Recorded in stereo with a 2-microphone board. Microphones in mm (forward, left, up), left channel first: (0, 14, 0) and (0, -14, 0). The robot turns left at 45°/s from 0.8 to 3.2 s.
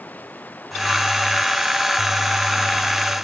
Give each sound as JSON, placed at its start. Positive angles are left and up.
{"t": 0.0, "sound": "running water", "azimuth_deg": 70}